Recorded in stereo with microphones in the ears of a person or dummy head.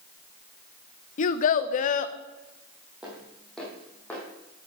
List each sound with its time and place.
1.2 s a child speaking: 45° left (ahead or behind), 0.6 m
3.0 s footsteps: 5° right (ahead or behind), 2.5 m; by 4.2 s 10° left (ahead or behind), 3 m